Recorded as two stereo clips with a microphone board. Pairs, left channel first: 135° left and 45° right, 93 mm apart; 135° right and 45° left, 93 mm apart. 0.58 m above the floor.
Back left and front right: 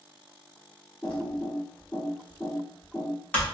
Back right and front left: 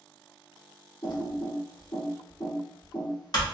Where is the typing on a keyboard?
155° right, 1.3 m.